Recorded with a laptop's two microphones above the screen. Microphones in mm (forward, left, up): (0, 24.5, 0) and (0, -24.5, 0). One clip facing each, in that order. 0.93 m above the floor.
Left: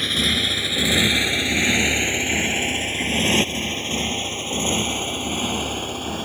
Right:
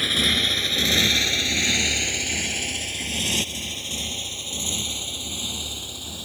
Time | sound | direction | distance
0.0 | a motorcycle | 5° right (ahead or behind) | ?